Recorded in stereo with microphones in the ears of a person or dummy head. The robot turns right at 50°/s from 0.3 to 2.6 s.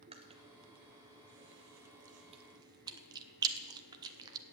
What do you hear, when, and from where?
0.1 s chewing: 35° right (ahead or behind), 0.7 m; by 4.4 s 20° right (ahead or behind), 0.7 m